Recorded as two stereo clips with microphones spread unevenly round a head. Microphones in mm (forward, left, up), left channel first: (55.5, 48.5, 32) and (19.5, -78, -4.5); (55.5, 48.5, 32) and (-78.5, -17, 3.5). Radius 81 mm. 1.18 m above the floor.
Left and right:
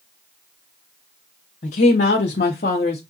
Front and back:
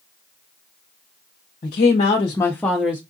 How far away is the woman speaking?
About 0.8 m.